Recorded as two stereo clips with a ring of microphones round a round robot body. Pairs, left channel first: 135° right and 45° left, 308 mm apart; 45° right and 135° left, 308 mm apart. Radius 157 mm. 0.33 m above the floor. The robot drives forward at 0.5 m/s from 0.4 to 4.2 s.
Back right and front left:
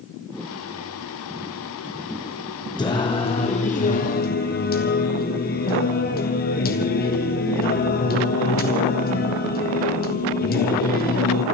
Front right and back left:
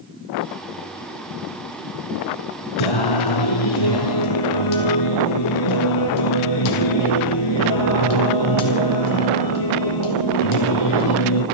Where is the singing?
60° right, 2.5 m; by 11.4 s 75° right, 2.5 m.